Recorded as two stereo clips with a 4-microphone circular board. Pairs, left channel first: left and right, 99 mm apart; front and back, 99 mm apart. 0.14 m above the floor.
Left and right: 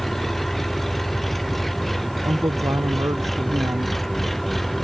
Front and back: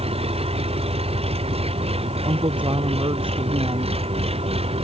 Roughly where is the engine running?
Behind.